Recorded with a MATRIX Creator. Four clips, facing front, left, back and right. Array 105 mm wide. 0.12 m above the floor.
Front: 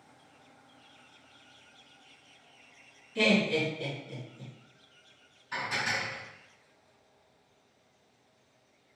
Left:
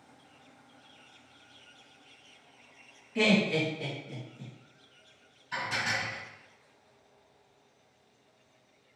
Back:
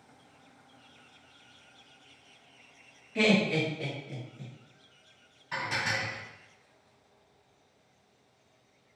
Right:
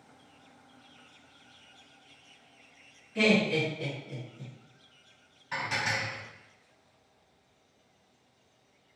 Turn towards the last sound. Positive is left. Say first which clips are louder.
# right 1 dB, back 1 dB
turn(degrees=-125)